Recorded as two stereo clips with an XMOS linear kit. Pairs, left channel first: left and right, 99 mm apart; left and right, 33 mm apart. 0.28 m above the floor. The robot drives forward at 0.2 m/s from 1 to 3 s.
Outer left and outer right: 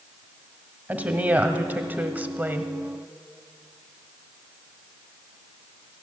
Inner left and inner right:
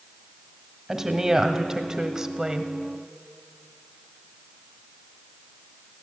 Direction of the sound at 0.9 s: 15° right (ahead or behind).